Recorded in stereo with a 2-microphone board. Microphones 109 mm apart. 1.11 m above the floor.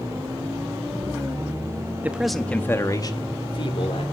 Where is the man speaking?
15° right (ahead or behind), 1.3 m; by 4.0 s 55° left (ahead or behind), 2.5 m.